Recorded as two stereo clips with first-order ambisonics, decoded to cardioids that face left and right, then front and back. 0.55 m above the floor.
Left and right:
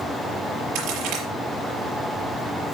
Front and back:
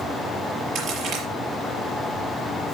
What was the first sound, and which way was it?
A crack, 130° right.